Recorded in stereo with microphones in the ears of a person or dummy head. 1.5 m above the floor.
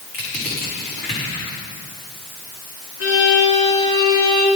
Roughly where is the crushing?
Left.